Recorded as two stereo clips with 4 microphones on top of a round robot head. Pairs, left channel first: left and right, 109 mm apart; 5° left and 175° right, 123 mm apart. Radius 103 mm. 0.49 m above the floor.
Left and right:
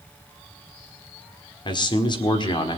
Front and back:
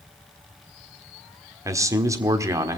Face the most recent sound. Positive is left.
turn(degrees=125)